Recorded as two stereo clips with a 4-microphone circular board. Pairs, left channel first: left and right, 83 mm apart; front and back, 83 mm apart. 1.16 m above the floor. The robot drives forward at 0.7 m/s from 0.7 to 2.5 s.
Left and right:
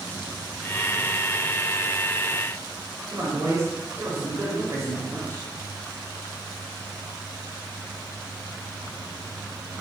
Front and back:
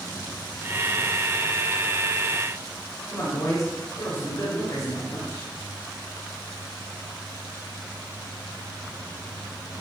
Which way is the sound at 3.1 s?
45° right.